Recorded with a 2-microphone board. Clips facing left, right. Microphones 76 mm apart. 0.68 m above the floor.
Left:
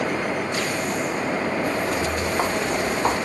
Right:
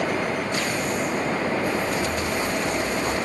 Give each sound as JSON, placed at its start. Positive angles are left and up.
{"t": 1.6, "sound": "footsteps", "side_deg": 65, "distance_m": 5.5}